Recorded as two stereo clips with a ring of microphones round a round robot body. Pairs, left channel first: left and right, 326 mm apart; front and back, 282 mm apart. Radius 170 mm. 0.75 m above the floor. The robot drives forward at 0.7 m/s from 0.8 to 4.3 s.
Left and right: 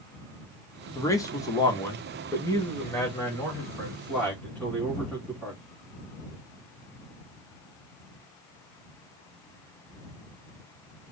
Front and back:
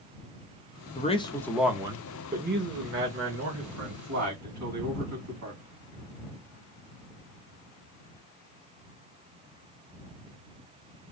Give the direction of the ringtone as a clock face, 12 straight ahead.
I don't hear a ringtone.